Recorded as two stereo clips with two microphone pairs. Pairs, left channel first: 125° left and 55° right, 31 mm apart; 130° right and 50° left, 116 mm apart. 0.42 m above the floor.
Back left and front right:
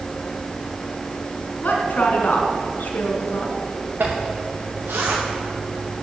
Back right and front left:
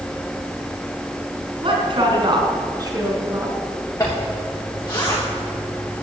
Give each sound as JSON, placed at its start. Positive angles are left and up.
{"t": 1.6, "sound": "a woman speaking", "azimuth_deg": 90, "distance_m": 4.0}
{"t": 4.0, "sound": "a zipper", "azimuth_deg": -65, "distance_m": 6.0}